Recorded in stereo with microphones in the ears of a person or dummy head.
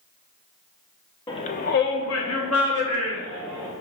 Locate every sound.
1.3 s a shout: 20° left (ahead or behind), 0.5 m; by 3.7 s 70° left (ahead or behind), 2.0 m